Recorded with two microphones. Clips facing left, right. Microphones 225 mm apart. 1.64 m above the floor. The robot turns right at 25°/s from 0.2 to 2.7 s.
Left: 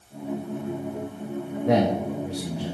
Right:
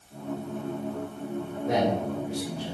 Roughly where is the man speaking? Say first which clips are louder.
Left 4 dB; left.